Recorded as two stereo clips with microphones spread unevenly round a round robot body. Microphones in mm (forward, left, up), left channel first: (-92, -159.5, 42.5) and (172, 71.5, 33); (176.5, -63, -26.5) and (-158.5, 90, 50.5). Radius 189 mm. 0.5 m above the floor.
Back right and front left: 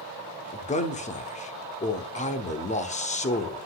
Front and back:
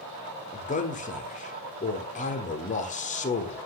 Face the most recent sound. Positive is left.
turn(degrees=-75)